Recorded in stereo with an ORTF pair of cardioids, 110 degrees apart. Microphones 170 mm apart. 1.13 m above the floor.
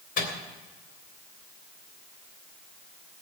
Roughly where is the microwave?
Ahead left.